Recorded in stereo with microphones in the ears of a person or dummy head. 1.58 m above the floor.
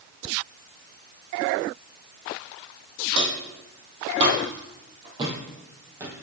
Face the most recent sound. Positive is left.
turn(degrees=-15)  # may be behind; listen again after turning